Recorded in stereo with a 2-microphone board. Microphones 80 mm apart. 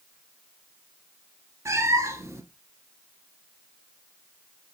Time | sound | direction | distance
1.6 | a cat meowing | 40° right (ahead or behind) | 1.3 m